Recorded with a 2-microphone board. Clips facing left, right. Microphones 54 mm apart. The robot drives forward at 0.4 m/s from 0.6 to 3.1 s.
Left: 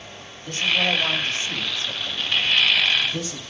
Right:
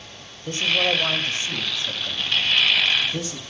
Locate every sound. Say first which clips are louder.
0.5 s a man speaking: even; 25° right (ahead or behind), 1.2 m; by 3.4 s 15° right (ahead or behind), 1.8 m